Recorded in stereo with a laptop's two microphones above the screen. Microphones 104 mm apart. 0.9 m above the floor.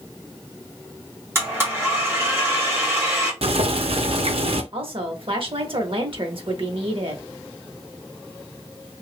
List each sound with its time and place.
1.4 s a blender: 20° right (ahead or behind), 1.1 m
3.4 s boiling: 65° right (ahead or behind), 0.6 m
4.7 s a woman speaking: 55° right (ahead or behind), 1.0 m